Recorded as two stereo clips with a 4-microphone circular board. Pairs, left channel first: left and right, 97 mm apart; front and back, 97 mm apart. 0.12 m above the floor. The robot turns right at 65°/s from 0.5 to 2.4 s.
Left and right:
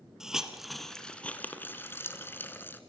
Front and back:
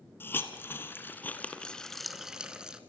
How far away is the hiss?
About 1.7 m.